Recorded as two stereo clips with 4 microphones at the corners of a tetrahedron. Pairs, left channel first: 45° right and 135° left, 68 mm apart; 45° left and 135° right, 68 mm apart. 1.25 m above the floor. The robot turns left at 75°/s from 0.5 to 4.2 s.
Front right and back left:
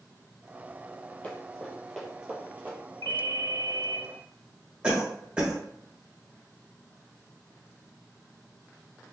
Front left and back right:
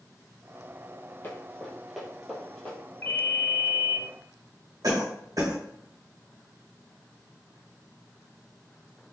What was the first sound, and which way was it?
Running footsteps, 10° left.